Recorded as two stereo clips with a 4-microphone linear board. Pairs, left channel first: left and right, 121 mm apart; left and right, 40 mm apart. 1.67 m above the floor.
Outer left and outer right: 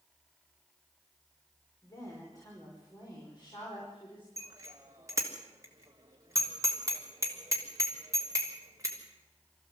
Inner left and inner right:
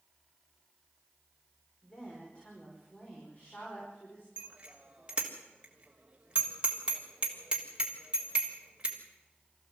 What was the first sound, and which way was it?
A woman speaking, 25° left (ahead or behind).